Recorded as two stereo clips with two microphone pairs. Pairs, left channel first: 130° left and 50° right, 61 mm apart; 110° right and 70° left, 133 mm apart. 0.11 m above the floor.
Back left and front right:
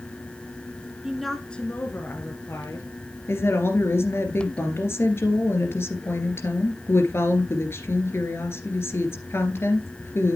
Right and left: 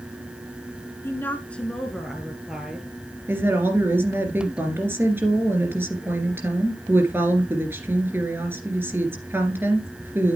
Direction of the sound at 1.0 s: 100° right.